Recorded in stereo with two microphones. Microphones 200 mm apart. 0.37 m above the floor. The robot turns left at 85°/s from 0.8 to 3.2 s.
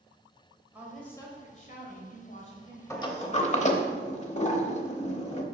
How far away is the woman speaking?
About 1.9 m.